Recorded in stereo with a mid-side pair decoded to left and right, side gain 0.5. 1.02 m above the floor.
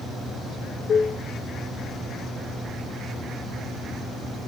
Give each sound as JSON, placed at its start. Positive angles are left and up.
{"t": 0.9, "sound": "dishes clattering", "azimuth_deg": 35, "distance_m": 0.8}